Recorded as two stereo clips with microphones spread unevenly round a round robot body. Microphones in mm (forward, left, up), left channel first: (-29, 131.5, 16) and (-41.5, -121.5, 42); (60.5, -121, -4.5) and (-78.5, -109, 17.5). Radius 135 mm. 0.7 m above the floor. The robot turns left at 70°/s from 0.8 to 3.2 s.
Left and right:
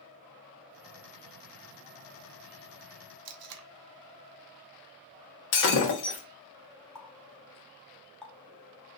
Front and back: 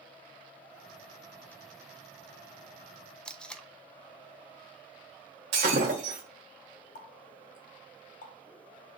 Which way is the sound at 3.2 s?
80° right.